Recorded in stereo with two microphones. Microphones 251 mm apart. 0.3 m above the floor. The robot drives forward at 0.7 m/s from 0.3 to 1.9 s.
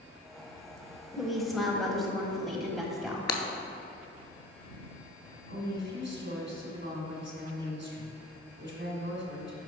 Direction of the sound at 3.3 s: 85° left.